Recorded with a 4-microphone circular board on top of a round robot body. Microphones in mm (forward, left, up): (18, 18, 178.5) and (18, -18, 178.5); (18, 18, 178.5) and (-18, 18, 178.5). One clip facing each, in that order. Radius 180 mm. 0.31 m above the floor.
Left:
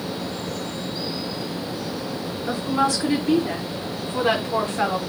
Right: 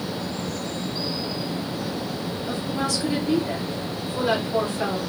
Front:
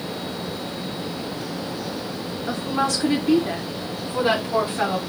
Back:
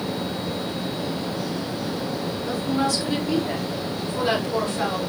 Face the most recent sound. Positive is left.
turn(degrees=65)